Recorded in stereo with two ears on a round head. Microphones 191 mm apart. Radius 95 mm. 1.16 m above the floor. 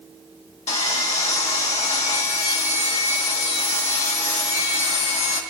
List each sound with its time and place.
0.7 s sawing: 30° left (ahead or behind), 2.0 m